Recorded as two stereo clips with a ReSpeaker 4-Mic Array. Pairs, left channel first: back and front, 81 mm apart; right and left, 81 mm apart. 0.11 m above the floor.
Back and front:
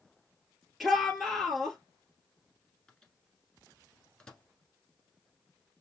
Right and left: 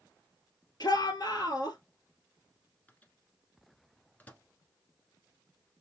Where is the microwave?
110° right, 1.0 m.